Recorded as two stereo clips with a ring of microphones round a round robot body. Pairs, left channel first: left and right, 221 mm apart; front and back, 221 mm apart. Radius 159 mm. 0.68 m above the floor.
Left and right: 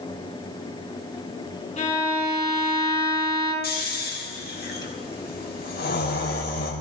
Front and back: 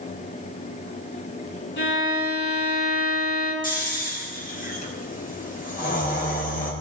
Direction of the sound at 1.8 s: 30° left.